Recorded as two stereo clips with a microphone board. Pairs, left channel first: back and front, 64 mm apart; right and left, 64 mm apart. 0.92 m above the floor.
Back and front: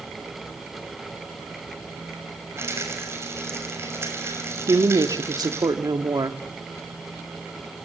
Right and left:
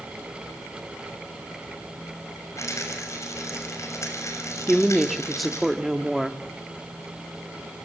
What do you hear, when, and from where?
2.6 s a rattle: 45° right, 6.5 m
4.7 s a woman speaking: straight ahead, 1.5 m